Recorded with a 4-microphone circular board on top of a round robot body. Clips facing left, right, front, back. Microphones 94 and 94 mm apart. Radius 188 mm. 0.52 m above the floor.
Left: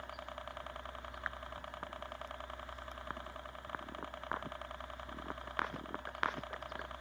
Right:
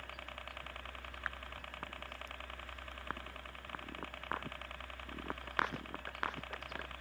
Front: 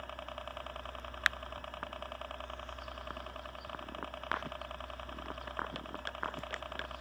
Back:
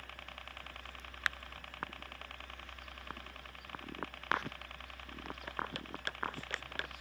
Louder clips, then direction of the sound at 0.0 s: Left 3 dB, front 7 dB; 30° left.